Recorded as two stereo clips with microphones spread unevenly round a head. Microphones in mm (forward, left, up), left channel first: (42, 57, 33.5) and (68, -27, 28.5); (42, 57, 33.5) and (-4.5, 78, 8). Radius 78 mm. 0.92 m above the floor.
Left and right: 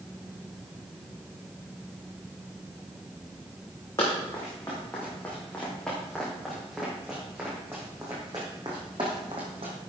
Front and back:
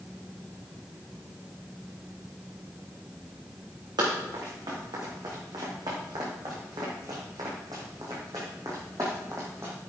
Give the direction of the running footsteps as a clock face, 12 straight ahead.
6 o'clock.